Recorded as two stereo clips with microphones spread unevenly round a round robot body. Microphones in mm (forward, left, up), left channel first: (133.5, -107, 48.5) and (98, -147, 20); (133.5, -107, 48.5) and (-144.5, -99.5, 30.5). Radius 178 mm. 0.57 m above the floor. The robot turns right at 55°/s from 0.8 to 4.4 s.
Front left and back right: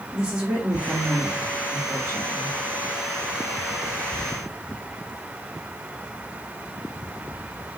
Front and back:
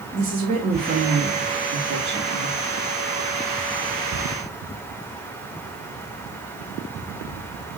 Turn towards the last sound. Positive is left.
turn(degrees=-40)